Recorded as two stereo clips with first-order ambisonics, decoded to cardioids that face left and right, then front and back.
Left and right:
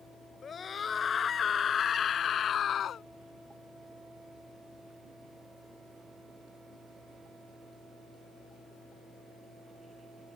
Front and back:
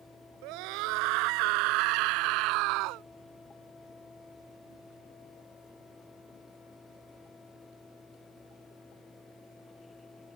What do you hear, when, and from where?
0.4 s a scream: 160° left; by 3.0 s 150° left